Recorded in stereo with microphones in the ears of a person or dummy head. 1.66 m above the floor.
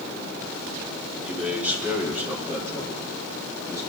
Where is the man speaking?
5° right (ahead or behind), 3.5 m; by 3.8 s 15° right (ahead or behind), 6.5 m.